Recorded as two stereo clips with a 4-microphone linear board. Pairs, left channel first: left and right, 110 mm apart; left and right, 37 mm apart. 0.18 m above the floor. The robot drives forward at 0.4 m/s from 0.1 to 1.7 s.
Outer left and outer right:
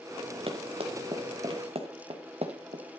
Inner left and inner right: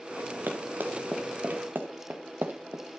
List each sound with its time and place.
0.5 s running footsteps: 60° right (ahead or behind), 2 m; by 2.8 s 75° right (ahead or behind), 1.4 m